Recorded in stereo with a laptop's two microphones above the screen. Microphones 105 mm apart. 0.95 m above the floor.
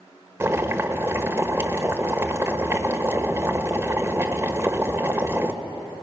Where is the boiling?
25° right (ahead or behind), 1.4 m.